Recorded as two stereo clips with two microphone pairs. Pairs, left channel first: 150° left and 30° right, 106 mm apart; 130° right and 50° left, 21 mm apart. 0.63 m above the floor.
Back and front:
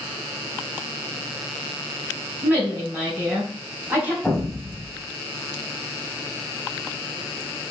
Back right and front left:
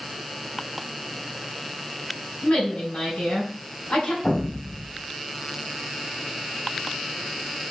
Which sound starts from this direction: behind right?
An explosion, at 4.2 s.